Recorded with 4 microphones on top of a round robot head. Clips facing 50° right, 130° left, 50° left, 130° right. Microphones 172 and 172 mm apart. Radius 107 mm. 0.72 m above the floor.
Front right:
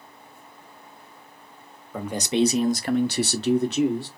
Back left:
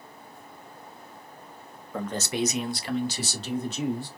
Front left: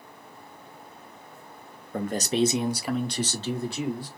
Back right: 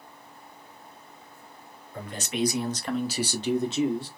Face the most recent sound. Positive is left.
turn(degrees=-65)